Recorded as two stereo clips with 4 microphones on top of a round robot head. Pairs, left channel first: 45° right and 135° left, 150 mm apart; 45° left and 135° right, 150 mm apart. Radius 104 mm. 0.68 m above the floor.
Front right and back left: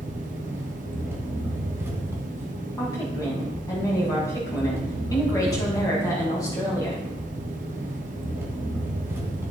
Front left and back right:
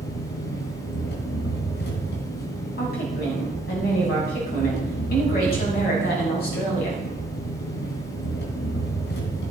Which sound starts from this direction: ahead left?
An engine running, at 0.0 s.